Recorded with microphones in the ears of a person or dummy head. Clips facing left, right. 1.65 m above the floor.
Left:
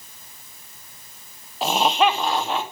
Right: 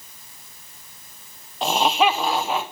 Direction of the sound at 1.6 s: 5° left (ahead or behind).